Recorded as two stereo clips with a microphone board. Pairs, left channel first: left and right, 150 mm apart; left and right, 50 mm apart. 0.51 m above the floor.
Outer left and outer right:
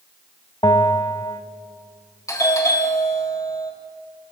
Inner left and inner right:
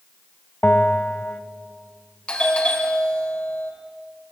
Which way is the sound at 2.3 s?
25° left (ahead or behind).